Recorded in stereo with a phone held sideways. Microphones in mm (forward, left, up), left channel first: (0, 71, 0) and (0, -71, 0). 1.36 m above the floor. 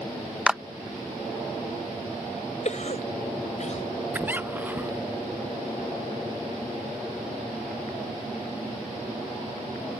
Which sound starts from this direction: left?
A cough, at 2.6 s.